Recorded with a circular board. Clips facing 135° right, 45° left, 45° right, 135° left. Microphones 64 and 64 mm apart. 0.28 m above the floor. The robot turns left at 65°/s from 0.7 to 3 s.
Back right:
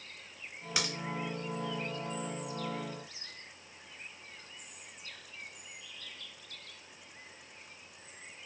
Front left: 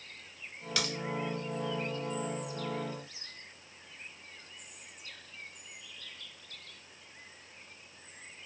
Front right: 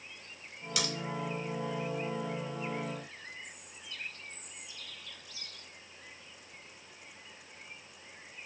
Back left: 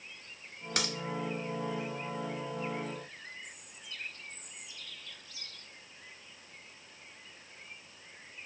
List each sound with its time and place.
0.8 s a crack: 160° left, 0.6 m; by 0.9 s 150° left, 0.6 m